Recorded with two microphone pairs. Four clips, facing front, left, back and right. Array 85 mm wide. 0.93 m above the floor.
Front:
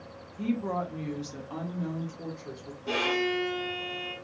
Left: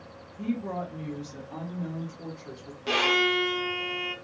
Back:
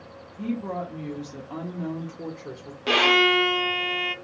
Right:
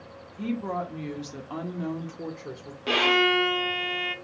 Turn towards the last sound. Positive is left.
turn(degrees=-175)